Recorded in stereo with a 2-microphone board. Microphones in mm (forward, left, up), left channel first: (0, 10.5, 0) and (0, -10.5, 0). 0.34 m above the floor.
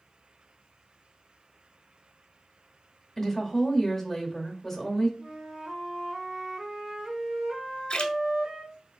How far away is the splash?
About 0.7 m.